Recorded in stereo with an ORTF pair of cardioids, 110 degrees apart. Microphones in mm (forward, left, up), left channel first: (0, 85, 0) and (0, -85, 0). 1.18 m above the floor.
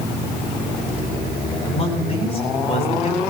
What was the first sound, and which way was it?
A man speaking, 40° left.